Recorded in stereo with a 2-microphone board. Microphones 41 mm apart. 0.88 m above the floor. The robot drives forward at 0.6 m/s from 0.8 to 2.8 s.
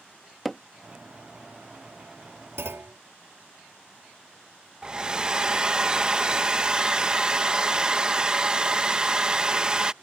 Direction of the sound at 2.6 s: 80° right.